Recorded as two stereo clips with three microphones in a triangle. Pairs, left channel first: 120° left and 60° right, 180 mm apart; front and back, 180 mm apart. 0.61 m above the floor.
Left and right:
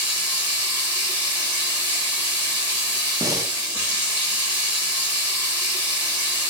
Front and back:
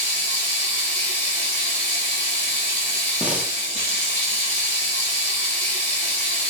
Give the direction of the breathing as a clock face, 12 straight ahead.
4 o'clock.